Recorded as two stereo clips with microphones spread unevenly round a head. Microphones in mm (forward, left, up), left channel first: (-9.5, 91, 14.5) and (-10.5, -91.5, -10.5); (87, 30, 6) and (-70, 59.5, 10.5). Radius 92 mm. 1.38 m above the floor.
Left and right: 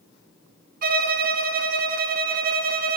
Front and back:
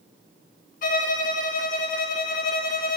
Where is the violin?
55° right, 0.6 m.